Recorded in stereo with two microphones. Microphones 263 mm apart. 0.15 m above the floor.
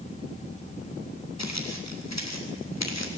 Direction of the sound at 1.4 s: 85° left.